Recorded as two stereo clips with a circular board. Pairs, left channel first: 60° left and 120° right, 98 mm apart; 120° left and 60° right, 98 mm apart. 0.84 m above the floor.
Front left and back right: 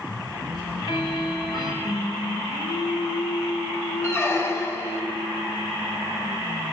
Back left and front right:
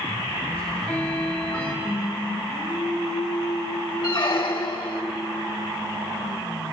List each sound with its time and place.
0.5 s ticking: 50° left, 2 m
1.8 s singing: 45° left, 1.7 m
4.0 s a squeak: 115° left, 1.0 m